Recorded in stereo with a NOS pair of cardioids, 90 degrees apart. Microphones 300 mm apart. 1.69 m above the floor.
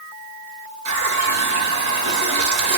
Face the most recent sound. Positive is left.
turn(degrees=-65)